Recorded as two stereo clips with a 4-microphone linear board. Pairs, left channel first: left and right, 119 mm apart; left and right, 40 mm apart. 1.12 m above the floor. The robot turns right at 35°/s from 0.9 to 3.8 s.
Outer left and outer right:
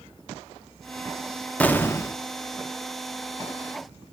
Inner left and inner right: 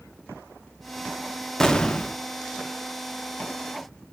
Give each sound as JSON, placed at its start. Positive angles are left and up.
{"t": 1.6, "sound": "an explosion", "side_deg": 10, "distance_m": 0.7}